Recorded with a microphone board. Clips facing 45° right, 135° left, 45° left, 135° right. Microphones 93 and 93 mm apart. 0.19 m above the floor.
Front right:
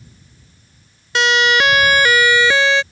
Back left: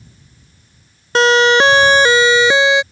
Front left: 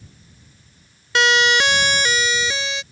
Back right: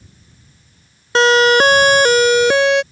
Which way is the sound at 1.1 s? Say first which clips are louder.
Back left 5 dB, back right 7 dB; straight behind.